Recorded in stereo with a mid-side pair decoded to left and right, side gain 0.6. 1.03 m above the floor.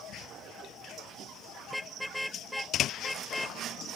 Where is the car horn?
Straight ahead.